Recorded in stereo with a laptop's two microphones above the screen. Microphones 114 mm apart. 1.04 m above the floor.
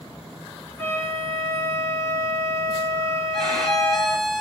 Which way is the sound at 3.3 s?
5° left (ahead or behind).